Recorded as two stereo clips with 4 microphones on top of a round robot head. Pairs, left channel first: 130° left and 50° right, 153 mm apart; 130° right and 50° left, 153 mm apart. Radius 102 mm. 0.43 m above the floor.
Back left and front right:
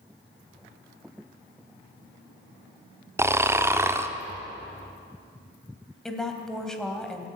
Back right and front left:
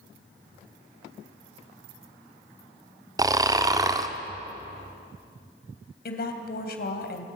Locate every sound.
3.2 s snoring: 5° left, 1.2 m
6.0 s a woman speaking: 145° right, 2.5 m